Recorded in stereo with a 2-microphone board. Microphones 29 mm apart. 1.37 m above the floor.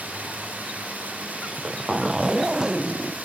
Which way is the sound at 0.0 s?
80° right.